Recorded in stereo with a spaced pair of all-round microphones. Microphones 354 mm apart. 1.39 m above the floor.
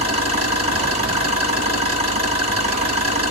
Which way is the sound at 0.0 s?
20° right (ahead or behind).